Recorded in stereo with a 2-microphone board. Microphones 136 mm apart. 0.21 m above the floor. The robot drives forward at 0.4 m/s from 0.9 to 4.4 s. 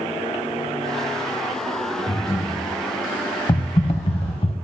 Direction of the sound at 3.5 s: 40° left (ahead or behind).